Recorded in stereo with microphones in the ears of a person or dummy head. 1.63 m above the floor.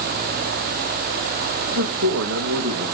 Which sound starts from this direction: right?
A man speaking, at 1.7 s.